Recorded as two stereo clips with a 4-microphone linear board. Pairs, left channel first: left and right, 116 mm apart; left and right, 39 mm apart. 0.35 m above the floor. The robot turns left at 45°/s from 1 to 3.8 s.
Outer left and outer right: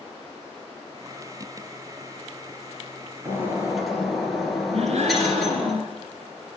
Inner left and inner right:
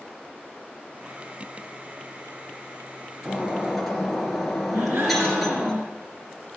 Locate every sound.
3.2 s breaking glass: 25° right (ahead or behind), 3.5 m; by 5.7 s centre (ahead or behind), 3.5 m
4.7 s a gasp: 70° right (ahead or behind), 4 m